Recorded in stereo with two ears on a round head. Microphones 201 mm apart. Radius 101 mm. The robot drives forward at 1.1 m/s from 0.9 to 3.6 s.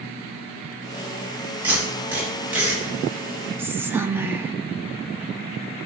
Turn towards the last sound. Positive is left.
turn(degrees=-10)  # may be behind; listen again after turning